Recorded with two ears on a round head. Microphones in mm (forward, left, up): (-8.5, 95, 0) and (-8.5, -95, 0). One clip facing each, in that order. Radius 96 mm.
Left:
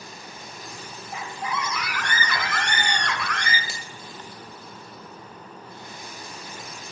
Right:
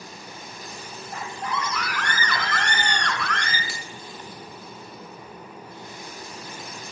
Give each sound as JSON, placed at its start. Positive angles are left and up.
{"t": 1.1, "sound": "a scream", "side_deg": 5, "distance_m": 2.5}
{"t": 3.7, "sound": "a finger snap", "side_deg": 20, "distance_m": 2.0}